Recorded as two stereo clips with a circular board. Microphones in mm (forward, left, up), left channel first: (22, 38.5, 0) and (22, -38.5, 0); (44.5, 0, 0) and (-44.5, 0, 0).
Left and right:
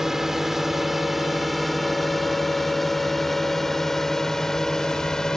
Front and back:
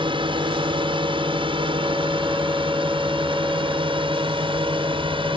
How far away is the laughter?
I don't hear laughter.